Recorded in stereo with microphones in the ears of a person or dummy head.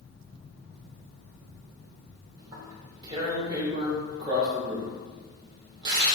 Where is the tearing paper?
15° right (ahead or behind), 2.5 m.